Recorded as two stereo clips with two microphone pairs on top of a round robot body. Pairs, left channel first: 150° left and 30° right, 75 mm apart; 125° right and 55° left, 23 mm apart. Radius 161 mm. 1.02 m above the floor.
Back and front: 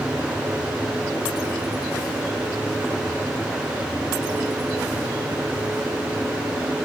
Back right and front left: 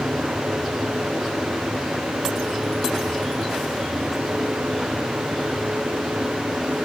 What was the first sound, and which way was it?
Only background noise.